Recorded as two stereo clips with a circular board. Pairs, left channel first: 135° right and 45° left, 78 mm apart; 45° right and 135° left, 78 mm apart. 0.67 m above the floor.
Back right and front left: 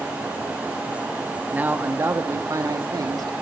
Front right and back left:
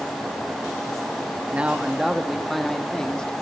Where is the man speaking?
90° left, 1.3 m; by 3.3 s 30° left, 2 m.